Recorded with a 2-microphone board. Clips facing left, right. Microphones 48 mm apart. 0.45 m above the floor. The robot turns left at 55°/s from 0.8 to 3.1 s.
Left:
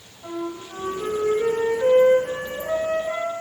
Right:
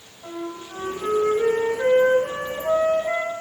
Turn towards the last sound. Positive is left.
turn(degrees=-135)